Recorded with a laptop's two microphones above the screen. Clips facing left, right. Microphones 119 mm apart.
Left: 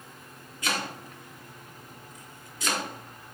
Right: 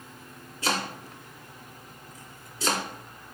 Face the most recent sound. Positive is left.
turn(degrees=-30)  # may be behind; listen again after turning